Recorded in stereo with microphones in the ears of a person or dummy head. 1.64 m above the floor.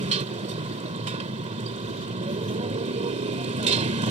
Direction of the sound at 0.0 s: 40° right (ahead or behind).